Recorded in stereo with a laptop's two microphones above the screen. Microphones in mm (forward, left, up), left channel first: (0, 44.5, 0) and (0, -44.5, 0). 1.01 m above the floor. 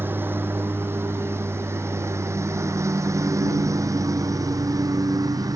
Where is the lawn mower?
20° right (ahead or behind); by 5.5 s 40° right (ahead or behind).